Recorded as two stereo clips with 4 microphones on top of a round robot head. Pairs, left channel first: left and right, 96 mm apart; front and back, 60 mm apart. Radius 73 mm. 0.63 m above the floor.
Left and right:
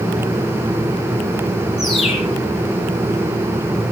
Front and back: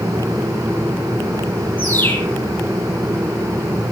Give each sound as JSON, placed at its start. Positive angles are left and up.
{"t": 1.8, "sound": "a bird", "azimuth_deg": 60, "distance_m": 6.0}